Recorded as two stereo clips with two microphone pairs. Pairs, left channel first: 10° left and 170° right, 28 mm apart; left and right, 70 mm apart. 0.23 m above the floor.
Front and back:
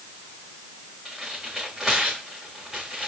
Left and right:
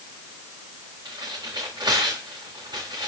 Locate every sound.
1.1 s tearing paper: 90° right, 6 m